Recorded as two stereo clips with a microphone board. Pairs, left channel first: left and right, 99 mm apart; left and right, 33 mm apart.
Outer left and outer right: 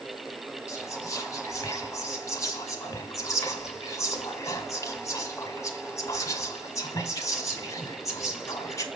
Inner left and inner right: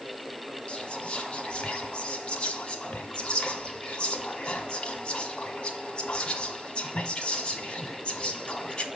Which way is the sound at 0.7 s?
35° left (ahead or behind).